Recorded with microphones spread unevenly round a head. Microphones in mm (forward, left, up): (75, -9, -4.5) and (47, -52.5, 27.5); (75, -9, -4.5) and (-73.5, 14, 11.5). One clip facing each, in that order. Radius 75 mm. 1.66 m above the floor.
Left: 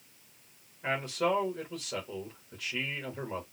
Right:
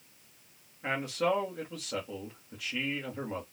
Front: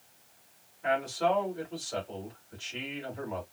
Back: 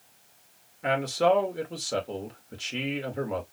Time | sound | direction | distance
0.8 | a man speaking | 150° left | 2.5 m